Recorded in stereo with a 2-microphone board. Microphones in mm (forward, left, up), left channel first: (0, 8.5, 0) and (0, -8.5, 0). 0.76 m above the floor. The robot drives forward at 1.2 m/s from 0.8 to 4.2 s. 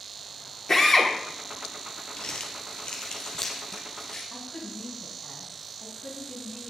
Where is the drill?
30° left (ahead or behind), 2.5 m; by 1.1 s 35° left (ahead or behind), 2.5 m.